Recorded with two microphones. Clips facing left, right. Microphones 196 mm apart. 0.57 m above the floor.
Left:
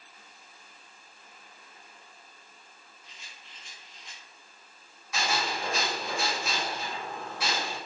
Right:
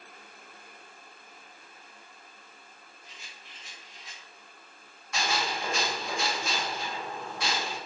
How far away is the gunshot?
About 1.9 m.